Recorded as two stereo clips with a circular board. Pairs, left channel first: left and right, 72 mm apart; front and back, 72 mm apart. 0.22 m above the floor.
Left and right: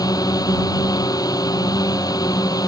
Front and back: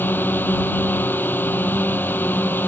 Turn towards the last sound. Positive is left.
turn(degrees=60)